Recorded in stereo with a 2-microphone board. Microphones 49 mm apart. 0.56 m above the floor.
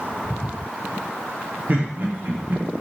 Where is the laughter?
40° right (ahead or behind), 0.9 m.